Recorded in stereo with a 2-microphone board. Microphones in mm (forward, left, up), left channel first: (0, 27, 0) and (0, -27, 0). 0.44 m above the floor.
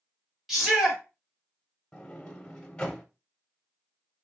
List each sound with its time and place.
0.5 s a shout: 5° right (ahead or behind), 1.3 m
1.9 s a sliding door: 20° left (ahead or behind), 0.7 m